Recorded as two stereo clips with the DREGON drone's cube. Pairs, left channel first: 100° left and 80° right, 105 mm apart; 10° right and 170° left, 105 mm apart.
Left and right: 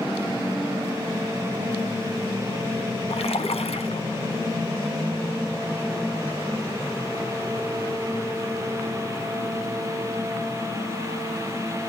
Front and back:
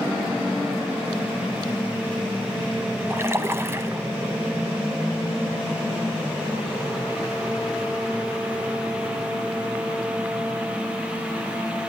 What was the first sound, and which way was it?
A splash, 105° left.